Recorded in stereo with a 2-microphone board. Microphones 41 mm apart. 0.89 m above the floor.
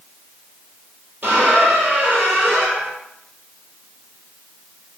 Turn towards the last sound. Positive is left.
turn(degrees=-55)  # may be behind; listen again after turning